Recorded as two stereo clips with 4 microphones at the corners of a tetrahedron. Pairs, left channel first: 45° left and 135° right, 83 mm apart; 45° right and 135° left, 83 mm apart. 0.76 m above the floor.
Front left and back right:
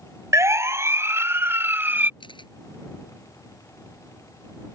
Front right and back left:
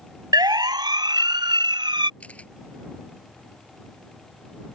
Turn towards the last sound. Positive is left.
turn(degrees=30)